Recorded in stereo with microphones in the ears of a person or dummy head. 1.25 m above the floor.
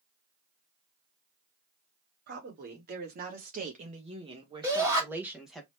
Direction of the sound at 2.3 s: 55° right (ahead or behind).